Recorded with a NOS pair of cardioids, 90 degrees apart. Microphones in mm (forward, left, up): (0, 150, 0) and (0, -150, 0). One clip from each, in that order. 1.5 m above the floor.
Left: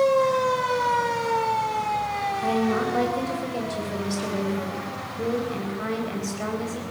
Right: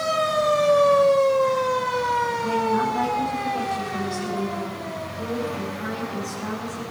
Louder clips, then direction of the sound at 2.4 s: Right 2 dB; 70° left.